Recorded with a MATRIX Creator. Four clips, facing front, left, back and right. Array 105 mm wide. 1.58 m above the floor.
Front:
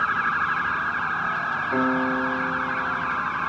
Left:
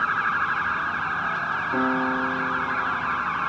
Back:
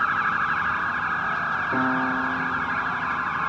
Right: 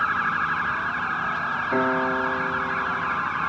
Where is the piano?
60° right, 6 m.